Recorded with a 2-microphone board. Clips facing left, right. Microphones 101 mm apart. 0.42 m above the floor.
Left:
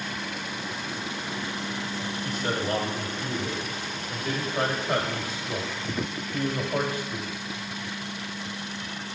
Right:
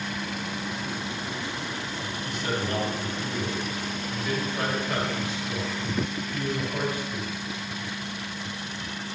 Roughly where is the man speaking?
Left.